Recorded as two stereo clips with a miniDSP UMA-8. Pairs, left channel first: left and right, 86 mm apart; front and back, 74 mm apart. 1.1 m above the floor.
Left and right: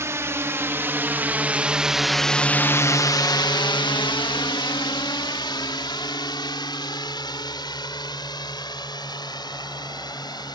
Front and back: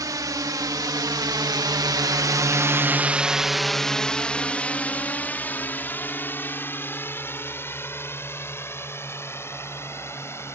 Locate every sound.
0.0 s a drone: 145° right; by 10.6 s 55° left